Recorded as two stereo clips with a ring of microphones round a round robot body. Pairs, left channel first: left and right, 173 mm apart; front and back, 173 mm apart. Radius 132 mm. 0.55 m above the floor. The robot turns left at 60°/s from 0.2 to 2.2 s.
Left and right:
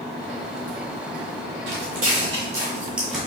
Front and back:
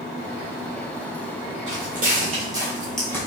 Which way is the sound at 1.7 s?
115° right.